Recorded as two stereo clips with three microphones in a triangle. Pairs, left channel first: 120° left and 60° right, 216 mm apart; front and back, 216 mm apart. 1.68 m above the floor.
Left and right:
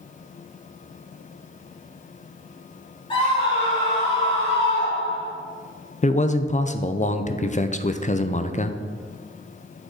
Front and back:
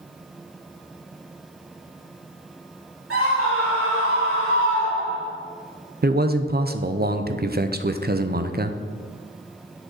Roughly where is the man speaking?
Behind.